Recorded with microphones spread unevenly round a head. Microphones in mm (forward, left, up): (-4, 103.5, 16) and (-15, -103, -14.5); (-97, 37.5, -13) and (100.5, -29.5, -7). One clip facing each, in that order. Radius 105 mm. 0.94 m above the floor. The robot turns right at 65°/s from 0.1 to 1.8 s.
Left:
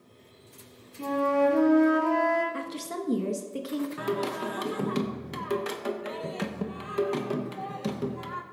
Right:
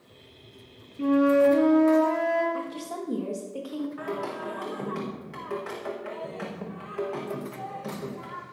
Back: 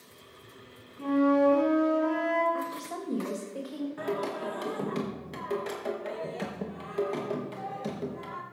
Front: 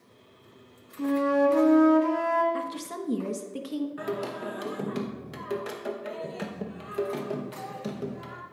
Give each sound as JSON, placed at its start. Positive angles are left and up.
{"t": 1.0, "sound": "a flute", "azimuth_deg": -40, "distance_m": 2.0}
{"t": 2.5, "sound": "a woman speaking", "azimuth_deg": 25, "distance_m": 1.3}
{"t": 4.0, "sound": "singing", "azimuth_deg": 60, "distance_m": 1.0}